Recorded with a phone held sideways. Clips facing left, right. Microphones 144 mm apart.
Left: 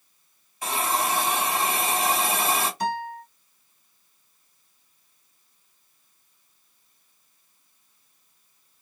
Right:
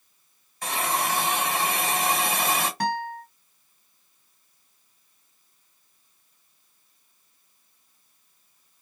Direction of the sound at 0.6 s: 5° left (ahead or behind).